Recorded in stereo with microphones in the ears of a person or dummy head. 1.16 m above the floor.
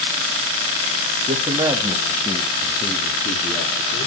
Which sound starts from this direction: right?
A man speaking, at 1.2 s.